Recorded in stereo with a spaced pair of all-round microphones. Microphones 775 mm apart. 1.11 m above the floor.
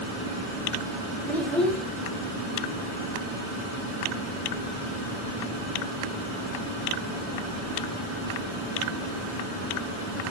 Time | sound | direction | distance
1.3 | a child speaking | centre (ahead or behind) | 0.6 m